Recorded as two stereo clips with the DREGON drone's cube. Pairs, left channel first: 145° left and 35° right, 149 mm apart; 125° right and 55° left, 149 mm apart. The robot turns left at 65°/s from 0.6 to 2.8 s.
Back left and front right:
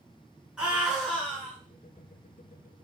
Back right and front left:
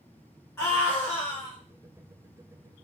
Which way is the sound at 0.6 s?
105° right.